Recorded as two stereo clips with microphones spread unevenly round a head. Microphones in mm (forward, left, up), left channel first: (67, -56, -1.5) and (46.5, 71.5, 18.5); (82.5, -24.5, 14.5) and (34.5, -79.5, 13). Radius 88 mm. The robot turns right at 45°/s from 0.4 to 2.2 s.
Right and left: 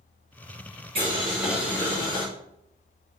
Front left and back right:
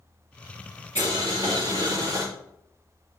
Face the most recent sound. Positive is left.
turn(degrees=-150)